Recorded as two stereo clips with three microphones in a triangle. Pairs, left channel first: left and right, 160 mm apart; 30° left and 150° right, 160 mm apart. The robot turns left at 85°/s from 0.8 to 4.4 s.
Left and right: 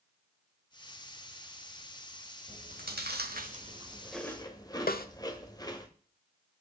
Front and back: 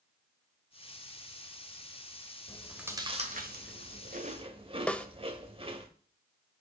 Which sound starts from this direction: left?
A snare drum, at 4.9 s.